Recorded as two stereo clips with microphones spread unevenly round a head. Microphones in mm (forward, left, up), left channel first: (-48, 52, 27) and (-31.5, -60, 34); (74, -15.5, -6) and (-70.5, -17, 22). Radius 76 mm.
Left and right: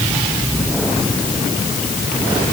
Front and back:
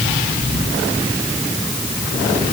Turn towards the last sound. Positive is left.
No sound to turn to.